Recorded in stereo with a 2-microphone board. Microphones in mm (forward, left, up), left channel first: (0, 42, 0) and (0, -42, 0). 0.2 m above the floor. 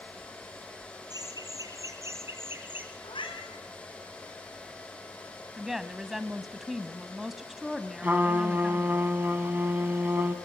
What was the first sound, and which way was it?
Laughter, 50° right (ahead or behind).